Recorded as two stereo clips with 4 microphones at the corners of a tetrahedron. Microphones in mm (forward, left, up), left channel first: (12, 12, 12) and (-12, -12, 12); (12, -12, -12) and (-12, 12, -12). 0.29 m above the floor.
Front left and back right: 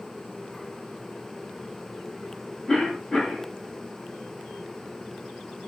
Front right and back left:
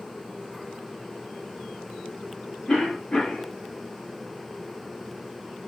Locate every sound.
2.7 s a cough: straight ahead, 1.6 m